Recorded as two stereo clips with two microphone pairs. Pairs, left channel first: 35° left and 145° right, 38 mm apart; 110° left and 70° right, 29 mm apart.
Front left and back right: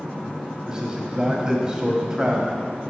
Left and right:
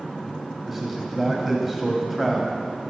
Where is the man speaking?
140° right, 1.0 m.